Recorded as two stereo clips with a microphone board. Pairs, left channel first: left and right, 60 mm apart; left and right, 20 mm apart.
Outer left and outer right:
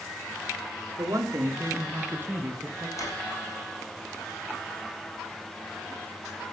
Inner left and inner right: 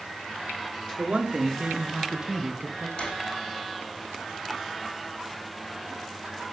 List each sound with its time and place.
1.0 s a man speaking: 55° right (ahead or behind), 3 m; by 2.9 s 20° right (ahead or behind), 3 m
3.0 s a drawer: 55° left (ahead or behind), 5 m